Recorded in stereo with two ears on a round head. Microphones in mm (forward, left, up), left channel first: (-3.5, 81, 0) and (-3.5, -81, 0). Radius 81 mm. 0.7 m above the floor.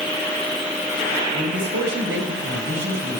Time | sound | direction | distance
1.3 | a man speaking | 70° right (ahead or behind) | 4.5 m